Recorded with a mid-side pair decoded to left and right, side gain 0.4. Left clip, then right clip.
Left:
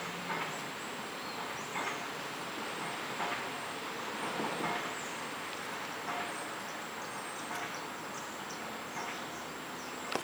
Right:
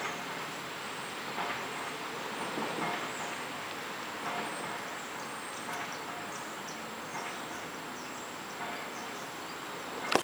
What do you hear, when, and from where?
Only background noise.